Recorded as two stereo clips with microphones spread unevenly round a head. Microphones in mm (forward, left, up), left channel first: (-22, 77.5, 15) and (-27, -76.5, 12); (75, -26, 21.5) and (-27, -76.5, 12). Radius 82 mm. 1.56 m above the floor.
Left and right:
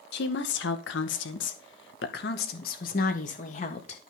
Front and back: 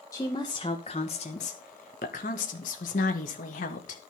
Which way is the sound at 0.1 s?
100° left.